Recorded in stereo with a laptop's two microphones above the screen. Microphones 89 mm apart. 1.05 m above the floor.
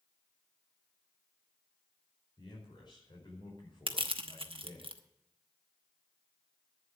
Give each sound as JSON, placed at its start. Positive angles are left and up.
{"t": 2.4, "sound": "a man speaking", "side_deg": 60, "distance_m": 4.0}
{"t": 3.9, "sound": "crushing", "side_deg": -85, "distance_m": 0.9}